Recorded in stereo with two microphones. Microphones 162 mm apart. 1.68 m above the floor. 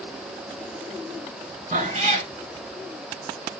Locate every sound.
1.7 s a cat meowing: 45° right (ahead or behind), 2 m